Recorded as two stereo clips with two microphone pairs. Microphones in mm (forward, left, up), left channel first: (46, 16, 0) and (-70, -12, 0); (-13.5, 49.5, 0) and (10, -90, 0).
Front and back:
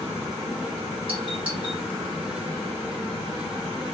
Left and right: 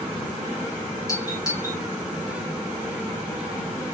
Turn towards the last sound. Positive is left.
turn(degrees=165)